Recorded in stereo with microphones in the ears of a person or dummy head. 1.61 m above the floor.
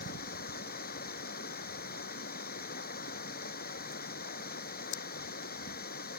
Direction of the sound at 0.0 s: 50° left (ahead or behind).